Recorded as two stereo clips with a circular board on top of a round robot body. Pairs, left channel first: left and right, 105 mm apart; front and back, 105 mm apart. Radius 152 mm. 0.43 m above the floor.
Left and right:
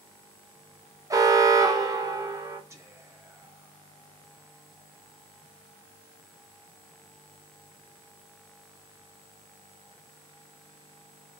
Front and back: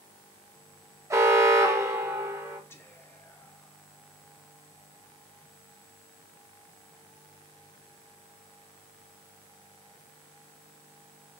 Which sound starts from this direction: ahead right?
Whispering, at 2.7 s.